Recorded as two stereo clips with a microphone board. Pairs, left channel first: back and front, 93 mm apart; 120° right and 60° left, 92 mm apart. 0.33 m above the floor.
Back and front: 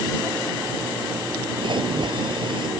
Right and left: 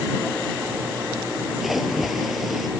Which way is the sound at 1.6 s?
30° right.